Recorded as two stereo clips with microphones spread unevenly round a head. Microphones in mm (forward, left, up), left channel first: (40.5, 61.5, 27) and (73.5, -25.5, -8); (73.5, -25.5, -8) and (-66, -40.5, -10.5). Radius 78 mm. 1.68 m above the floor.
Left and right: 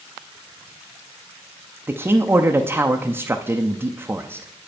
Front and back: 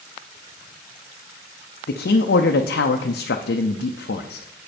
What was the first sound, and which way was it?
A man speaking, straight ahead.